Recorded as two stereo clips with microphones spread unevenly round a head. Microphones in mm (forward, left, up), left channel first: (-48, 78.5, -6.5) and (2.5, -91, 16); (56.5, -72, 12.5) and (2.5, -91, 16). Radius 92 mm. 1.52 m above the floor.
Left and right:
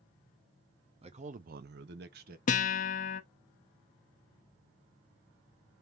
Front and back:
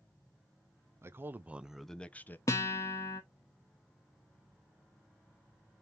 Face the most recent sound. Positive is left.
turn(degrees=65)